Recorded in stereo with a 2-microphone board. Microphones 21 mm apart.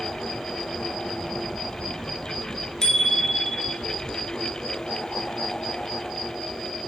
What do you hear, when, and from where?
2.8 s a bicycle bell: 30° left (ahead or behind), 3.5 m